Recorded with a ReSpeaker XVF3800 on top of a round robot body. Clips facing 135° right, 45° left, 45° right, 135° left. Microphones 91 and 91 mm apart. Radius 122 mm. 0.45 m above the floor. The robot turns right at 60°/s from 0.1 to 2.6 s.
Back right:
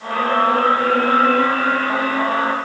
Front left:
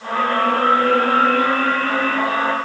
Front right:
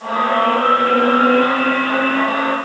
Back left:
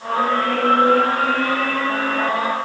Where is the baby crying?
No baby crying in this recording.